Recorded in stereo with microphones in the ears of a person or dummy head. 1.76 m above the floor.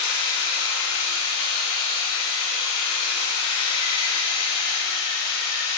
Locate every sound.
0.0 s a machine running: 30° left (ahead or behind), 2 m